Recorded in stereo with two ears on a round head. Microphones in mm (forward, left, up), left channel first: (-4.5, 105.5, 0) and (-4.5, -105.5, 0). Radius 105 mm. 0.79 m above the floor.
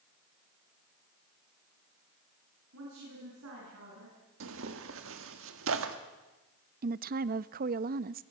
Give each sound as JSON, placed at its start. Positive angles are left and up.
{"t": 2.7, "sound": "a woman speaking", "side_deg": -70, "distance_m": 9.0}
{"t": 4.4, "sound": "tearing paper", "side_deg": -65, "distance_m": 1.6}
{"t": 6.8, "sound": "a woman speaking", "side_deg": -40, "distance_m": 0.6}